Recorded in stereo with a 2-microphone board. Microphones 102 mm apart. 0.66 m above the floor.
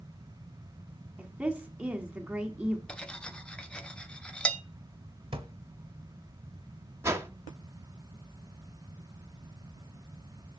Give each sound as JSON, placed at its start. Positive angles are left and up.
{"t": 1.2, "sound": "a woman speaking", "side_deg": -10, "distance_m": 1.4}
{"t": 2.9, "sound": "cutlery clinking", "side_deg": 10, "distance_m": 0.6}
{"t": 5.3, "sound": "a drawer", "side_deg": -60, "distance_m": 0.9}
{"t": 7.0, "sound": "a whoosh", "side_deg": -25, "distance_m": 0.8}